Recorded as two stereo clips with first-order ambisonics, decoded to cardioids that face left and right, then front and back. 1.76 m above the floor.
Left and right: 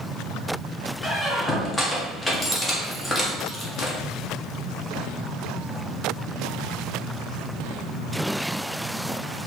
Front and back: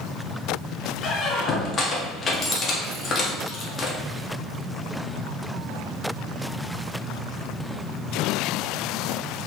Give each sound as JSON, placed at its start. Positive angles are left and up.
{"t": 1.0, "sound": "a squeak", "azimuth_deg": 30, "distance_m": 0.7}